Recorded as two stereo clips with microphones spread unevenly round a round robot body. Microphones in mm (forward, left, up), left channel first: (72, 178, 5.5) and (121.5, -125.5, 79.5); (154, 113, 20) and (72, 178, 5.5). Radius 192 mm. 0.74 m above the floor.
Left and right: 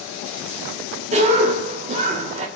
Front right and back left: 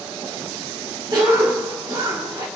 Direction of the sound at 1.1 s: 155° right.